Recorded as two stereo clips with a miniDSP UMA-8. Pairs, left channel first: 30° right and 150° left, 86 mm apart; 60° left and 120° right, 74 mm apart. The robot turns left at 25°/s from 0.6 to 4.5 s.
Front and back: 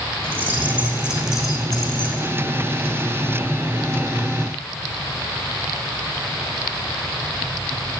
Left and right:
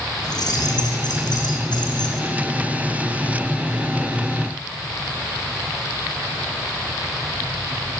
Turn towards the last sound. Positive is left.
turn(degrees=-10)